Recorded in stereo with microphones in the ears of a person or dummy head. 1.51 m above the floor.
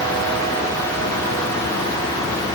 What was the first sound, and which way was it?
Only background noise.